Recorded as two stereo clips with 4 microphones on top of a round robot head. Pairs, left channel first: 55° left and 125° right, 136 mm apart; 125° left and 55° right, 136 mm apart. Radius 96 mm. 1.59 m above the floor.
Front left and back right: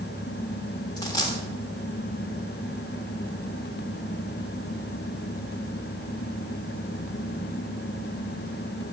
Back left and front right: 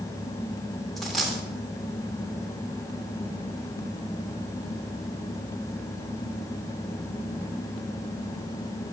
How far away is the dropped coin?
About 1.2 m.